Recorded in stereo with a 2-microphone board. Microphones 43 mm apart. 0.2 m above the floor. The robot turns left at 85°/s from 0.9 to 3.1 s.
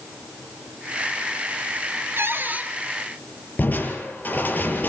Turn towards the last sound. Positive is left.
turn(degrees=45)  # may be behind; listen again after turning